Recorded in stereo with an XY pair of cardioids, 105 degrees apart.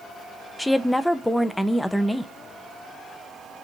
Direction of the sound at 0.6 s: 5° left.